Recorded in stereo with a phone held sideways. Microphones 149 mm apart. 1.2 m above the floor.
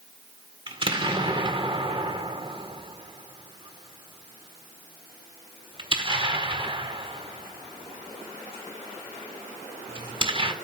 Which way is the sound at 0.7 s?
35° right (ahead or behind).